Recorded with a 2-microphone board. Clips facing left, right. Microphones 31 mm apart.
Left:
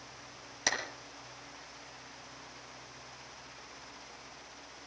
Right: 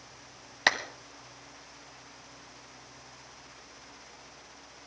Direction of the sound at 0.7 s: 45° right (ahead or behind).